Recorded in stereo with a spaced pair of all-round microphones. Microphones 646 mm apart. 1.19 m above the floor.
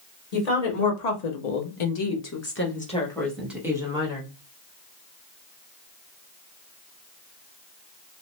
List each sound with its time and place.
0.3 s a woman speaking: 70° left (ahead or behind), 1.1 m; by 4.3 s 10° right (ahead or behind), 1.7 m